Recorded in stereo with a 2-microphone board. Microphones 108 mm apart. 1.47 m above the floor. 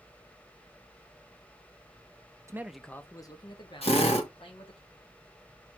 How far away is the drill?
About 2 m.